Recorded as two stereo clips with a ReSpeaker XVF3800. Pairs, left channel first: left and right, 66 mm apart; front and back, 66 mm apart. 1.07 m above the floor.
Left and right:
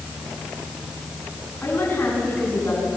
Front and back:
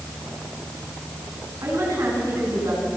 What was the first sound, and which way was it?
A woman speaking, 145° left.